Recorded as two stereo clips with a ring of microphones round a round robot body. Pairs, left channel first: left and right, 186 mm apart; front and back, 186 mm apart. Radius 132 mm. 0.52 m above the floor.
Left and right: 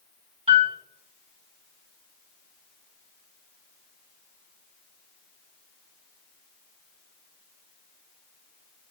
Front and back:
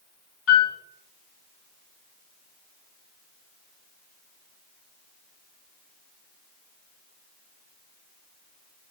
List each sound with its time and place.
0.5 s a piano: 30° right, 3.5 m